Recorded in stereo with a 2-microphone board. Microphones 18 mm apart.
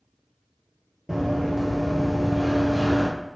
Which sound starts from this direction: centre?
Running footsteps, at 1.1 s.